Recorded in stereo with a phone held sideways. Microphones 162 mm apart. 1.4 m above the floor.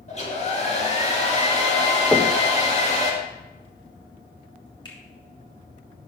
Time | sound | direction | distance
0.1 | a hair dryer | 40° left (ahead or behind) | 2 m
2.1 | knocking | 10° left (ahead or behind) | 1.1 m
4.8 | a finger snap | 25° left (ahead or behind) | 3 m